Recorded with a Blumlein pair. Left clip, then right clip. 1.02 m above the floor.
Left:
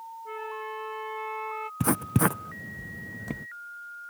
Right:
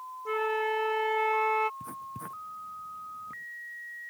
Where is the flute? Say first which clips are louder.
Right 8 dB; 65° right.